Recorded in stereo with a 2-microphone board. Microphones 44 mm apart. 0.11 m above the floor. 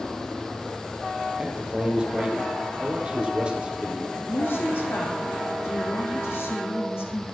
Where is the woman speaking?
70° left (ahead or behind), 4 m.